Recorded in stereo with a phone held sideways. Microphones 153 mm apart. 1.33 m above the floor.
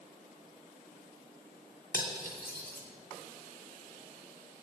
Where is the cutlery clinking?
80° left, 1.8 m.